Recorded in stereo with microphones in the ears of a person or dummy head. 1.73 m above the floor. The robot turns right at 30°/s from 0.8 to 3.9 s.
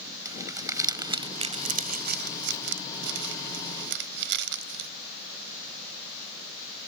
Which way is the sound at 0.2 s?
15° right (ahead or behind).